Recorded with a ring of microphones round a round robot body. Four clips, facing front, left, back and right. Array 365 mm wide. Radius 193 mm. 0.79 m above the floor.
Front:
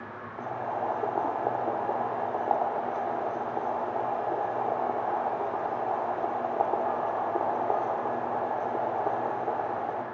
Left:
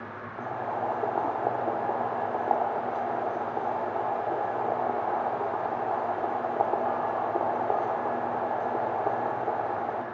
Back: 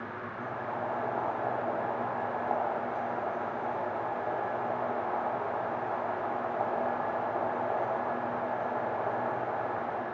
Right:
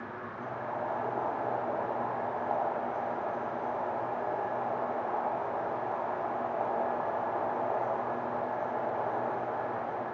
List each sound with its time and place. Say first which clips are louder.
0.4 s boiling: left 5 dB, front 4 dB; 50° left, 1.3 m